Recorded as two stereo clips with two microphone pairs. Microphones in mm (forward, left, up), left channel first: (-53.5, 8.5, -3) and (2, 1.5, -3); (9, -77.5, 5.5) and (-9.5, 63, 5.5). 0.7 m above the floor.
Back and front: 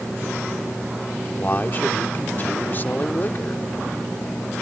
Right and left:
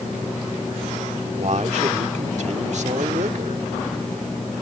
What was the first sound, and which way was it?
A man speaking, 125° left.